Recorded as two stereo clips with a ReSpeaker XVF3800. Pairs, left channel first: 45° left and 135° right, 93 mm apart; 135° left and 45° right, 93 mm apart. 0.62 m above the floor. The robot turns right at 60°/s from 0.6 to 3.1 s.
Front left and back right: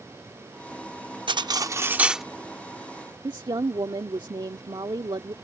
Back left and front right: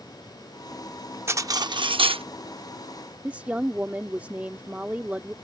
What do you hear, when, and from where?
1.3 s cutlery clinking: 105° right; by 2.2 s 45° right
3.2 s a woman speaking: 115° right